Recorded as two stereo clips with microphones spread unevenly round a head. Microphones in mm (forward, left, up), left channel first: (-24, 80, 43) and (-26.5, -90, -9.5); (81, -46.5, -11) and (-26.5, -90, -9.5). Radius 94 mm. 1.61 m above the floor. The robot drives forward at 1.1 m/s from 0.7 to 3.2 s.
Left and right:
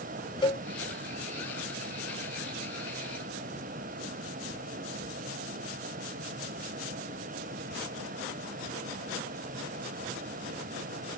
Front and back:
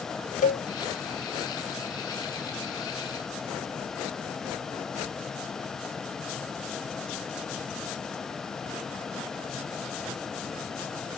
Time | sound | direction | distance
0.4 | a cowbell | 20° left | ?